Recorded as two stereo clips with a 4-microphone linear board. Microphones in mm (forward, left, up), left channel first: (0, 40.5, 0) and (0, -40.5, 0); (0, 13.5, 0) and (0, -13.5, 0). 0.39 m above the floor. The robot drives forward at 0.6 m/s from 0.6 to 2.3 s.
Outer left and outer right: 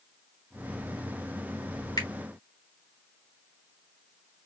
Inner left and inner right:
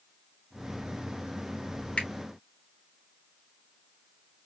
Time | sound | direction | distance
2.0 | a finger snap | 55° left (ahead or behind) | 3 m